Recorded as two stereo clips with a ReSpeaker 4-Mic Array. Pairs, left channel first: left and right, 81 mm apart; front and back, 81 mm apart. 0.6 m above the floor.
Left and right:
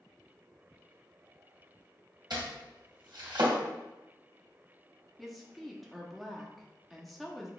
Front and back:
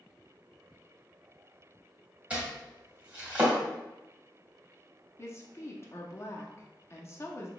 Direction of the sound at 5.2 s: Straight ahead.